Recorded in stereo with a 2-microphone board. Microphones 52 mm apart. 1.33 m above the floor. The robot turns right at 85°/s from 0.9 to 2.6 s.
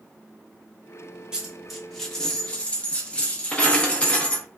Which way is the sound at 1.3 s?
15° right (ahead or behind).